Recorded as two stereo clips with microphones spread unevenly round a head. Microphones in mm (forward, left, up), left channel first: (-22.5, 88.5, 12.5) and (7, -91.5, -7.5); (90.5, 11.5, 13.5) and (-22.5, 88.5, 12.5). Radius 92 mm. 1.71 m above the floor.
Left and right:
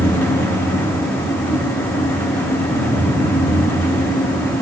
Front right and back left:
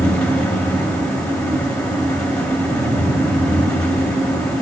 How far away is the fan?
About 1.3 m.